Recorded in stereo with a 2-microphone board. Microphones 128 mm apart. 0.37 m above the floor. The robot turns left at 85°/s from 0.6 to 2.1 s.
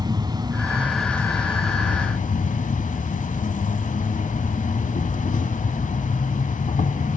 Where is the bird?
No bird in this recording.